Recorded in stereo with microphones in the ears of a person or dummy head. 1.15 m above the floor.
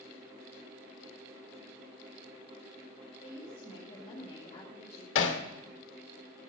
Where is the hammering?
75° left (ahead or behind), 2 m.